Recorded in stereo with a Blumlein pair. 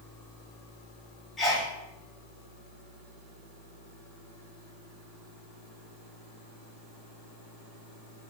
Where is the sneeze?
15° left, 1.3 m.